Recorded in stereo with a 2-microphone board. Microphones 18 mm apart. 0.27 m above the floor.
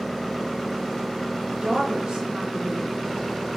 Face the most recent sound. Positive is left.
turn(degrees=-70)  # may be behind; listen again after turning